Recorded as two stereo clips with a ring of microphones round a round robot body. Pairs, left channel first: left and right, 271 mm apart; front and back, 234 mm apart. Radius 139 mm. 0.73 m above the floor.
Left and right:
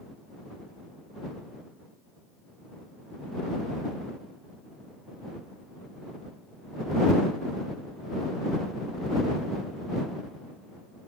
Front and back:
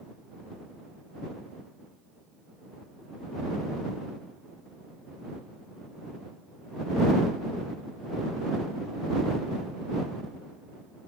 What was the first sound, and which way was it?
Only background noise.